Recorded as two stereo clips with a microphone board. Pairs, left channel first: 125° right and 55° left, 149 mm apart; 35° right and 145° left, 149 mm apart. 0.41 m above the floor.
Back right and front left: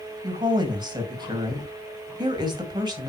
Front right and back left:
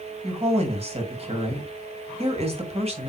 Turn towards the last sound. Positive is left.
turn(degrees=110)